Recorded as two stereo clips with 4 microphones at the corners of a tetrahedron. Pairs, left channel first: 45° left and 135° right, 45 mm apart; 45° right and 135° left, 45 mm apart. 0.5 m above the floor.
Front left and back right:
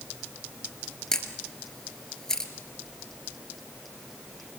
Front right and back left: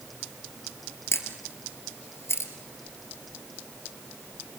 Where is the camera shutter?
35° right, 2.5 m.